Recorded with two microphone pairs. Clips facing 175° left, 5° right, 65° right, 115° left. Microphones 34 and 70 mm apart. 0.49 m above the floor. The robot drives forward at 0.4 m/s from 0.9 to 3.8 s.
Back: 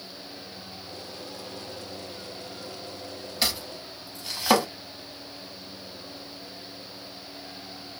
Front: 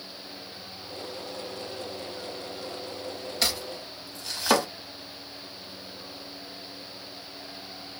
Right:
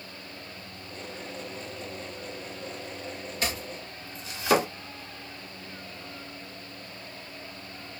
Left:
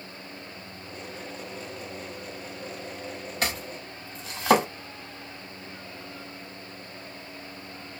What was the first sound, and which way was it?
Chopping, 95° left.